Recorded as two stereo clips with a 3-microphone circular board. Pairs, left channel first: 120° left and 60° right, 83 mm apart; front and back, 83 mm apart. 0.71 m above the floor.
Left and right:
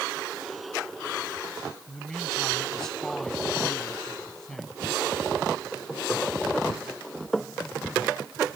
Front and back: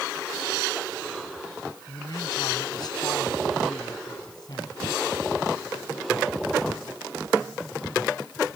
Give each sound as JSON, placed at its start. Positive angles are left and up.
{"t": 1.9, "sound": "a man speaking", "azimuth_deg": 35}